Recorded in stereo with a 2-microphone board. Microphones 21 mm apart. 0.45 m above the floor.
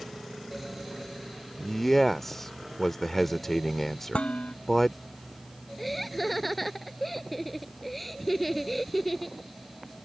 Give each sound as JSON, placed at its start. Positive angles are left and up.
{"t": 1.6, "sound": "a man speaking", "side_deg": 10}
{"t": 4.1, "sound": "dishes clattering", "side_deg": 80}
{"t": 5.8, "sound": "laughter", "side_deg": 0}